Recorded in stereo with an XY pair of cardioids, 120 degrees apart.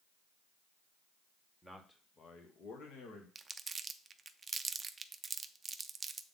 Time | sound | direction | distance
1.6 | a man speaking | 5° left | 1.2 m
3.4 | crumpling | 25° right | 0.5 m